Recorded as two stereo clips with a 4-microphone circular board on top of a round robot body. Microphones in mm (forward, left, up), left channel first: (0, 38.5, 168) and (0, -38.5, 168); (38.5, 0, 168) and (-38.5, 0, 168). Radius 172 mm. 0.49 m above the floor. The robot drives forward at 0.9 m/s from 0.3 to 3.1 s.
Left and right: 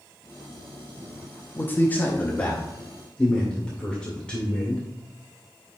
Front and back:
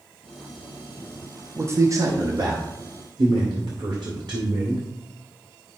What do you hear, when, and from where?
1.6 s a man speaking: 140° left, 1.2 m; by 4.8 s 165° left, 2 m